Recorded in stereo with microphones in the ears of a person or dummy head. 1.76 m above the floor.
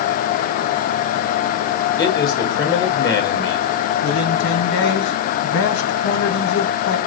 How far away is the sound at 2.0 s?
About 1.7 m.